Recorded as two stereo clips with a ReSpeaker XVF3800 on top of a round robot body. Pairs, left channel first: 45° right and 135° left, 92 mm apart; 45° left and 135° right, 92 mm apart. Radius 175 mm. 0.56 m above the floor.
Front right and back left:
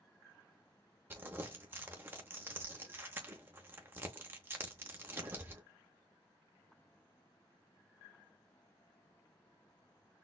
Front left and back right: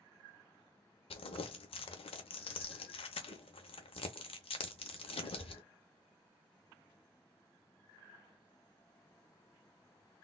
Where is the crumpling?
70° left, 0.7 m.